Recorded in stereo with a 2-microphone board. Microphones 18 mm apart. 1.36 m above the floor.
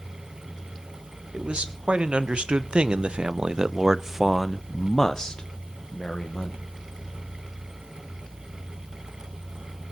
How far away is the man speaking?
About 2 m.